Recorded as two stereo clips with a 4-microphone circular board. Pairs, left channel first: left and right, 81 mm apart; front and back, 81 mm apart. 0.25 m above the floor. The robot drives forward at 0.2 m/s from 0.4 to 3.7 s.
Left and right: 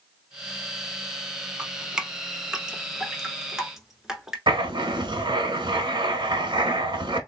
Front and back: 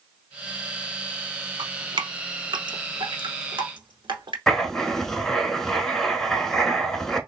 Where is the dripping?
165° right, 0.5 m; by 4.4 s 175° right, 0.9 m.